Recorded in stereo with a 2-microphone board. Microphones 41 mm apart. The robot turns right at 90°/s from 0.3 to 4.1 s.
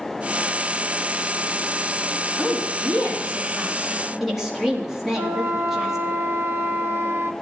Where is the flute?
75° right (ahead or behind), 1.2 m.